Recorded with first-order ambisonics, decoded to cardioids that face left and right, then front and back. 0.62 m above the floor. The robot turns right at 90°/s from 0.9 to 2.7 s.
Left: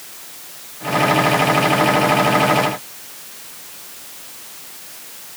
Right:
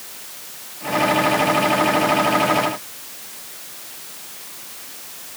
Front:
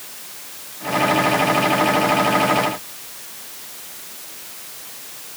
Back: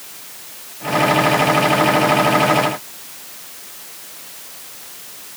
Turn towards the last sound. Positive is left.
No sound to turn to.